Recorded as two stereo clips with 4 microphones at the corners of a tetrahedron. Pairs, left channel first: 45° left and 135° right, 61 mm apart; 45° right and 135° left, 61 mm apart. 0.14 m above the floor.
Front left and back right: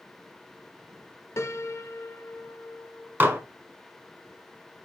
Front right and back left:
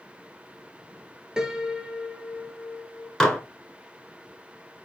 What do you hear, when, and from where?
1.4 s a piano: 60° left, 0.5 m
3.2 s dishes clattering: 115° right, 1.0 m